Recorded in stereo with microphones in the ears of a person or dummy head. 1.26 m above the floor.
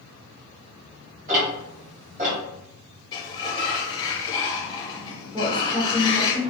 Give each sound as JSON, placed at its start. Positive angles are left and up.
{"t": 1.3, "sound": "ticking", "side_deg": -45, "distance_m": 1.9}
{"t": 3.1, "sound": "a sliding door", "side_deg": 20, "distance_m": 0.5}
{"t": 5.3, "sound": "a woman speaking", "side_deg": 0, "distance_m": 1.0}